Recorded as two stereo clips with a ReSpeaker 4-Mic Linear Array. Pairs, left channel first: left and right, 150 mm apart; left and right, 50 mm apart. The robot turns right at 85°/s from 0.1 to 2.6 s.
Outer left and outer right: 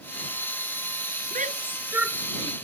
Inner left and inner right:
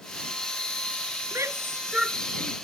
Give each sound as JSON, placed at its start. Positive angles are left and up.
{"t": 1.3, "sound": "a shout", "side_deg": -65}